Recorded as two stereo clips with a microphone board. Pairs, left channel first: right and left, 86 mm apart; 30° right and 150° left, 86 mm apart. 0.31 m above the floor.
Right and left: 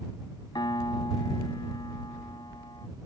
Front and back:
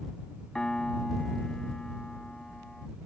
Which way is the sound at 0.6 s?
110° right.